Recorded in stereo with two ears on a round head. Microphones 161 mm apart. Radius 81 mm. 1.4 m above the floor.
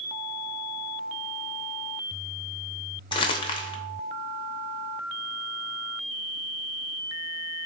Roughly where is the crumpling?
Left.